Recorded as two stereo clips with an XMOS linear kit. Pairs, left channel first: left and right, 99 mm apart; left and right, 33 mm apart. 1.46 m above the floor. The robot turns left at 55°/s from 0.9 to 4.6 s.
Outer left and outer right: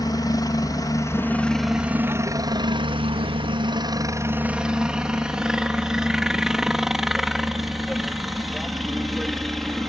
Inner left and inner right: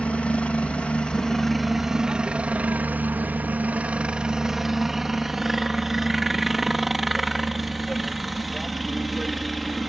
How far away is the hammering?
No hammering in this recording.